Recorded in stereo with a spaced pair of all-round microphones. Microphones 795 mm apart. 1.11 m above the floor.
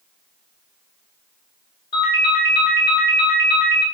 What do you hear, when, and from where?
1.9 s a ringtone: 60° left (ahead or behind), 1.5 m